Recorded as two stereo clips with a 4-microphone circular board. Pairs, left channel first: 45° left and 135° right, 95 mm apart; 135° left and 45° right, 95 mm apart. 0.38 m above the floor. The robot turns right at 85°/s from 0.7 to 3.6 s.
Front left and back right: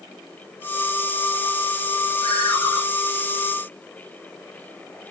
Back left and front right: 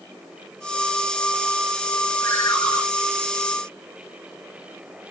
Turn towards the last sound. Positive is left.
turn(degrees=180)